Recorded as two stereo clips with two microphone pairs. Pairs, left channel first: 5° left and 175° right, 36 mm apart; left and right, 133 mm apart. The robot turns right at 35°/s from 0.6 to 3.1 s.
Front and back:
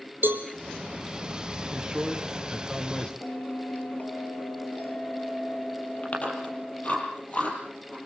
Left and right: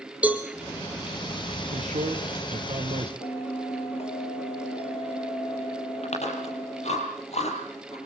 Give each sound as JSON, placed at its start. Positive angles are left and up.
{"t": 0.2, "sound": "a cowbell", "azimuth_deg": -170, "distance_m": 2.5}
{"t": 1.7, "sound": "a man speaking", "azimuth_deg": -105, "distance_m": 3.0}
{"t": 3.2, "sound": "a bell", "azimuth_deg": 55, "distance_m": 3.5}
{"t": 6.0, "sound": "chewing", "azimuth_deg": 55, "distance_m": 6.0}